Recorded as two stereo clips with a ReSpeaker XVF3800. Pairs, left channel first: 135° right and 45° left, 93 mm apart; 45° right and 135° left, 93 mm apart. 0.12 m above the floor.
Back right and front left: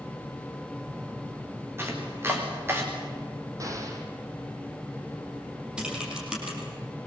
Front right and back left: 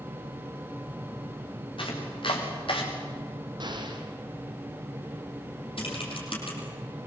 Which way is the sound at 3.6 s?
100° left.